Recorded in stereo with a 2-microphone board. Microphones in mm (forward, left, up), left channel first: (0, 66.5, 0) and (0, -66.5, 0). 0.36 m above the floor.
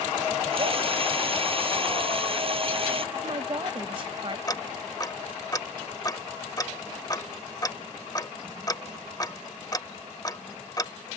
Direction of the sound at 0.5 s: 45° right (ahead or behind).